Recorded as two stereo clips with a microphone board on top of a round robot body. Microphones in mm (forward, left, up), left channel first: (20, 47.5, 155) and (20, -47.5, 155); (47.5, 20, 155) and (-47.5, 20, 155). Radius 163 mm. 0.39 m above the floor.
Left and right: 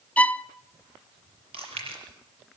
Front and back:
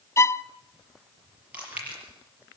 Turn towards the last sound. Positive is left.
turn(degrees=-105)